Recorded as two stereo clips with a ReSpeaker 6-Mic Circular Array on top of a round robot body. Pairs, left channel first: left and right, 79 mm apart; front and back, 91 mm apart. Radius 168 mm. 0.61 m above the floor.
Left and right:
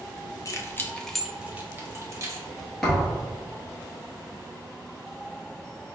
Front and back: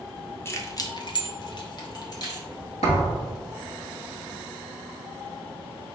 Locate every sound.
0.5 s keys jangling: 55° left, 0.7 m; by 2.5 s 45° right, 1.2 m
2.8 s a thud: 5° left, 1.1 m